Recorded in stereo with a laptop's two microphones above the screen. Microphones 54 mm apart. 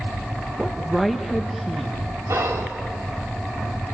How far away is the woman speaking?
About 0.9 m.